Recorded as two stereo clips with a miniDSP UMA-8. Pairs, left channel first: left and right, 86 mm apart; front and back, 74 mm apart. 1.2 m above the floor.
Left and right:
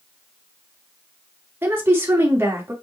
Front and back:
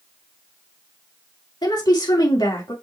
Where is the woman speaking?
25° right, 2.5 m.